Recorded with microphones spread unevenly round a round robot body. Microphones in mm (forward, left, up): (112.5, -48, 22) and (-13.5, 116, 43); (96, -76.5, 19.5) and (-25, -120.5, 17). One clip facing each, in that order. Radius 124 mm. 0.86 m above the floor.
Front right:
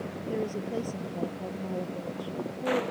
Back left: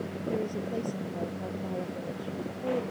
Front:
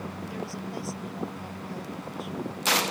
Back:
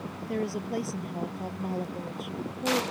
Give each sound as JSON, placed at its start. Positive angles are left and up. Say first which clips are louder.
{"t": 0.3, "sound": "a woman speaking", "louder": "front right 1 dB, back 9 dB", "azimuth_deg": -135}